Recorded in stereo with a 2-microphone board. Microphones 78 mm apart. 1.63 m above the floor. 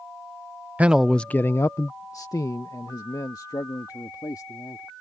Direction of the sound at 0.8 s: 20° right (ahead or behind).